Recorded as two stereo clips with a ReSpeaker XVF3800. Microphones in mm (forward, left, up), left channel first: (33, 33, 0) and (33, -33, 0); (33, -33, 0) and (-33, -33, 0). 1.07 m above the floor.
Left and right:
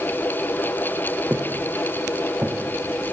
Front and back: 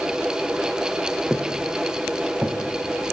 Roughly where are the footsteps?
Right.